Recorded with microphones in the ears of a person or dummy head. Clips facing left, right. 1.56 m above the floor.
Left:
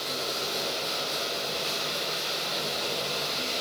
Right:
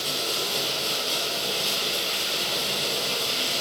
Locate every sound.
0.0 s running water: 45° right (ahead or behind), 6.5 m